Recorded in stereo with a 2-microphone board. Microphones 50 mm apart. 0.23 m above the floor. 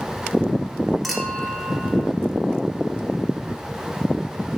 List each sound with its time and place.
1.0 s a clink: centre (ahead or behind), 2 m